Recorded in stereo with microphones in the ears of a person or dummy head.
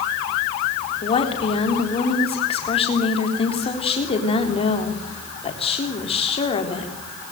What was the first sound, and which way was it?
A woman speaking, 30° left (ahead or behind).